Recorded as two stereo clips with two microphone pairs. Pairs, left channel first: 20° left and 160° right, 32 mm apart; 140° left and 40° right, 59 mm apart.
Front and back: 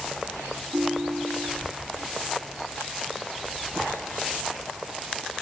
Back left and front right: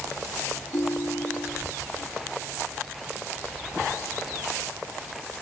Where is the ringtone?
170° left.